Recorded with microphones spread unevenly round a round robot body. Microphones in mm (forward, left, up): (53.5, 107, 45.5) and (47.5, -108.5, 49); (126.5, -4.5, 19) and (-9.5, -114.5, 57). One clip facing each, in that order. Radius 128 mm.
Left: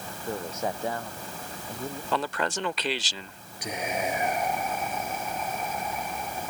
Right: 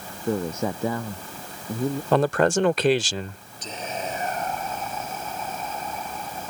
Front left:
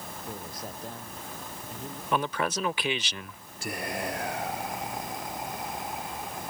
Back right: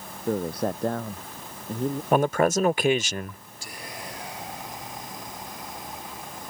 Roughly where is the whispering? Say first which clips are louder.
Left 2 dB, front left 7 dB; ahead.